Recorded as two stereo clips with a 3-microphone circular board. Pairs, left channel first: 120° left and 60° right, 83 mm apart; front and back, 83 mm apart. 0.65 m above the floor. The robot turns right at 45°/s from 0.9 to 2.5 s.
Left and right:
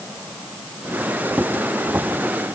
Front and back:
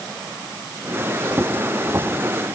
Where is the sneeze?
No sneeze in this recording.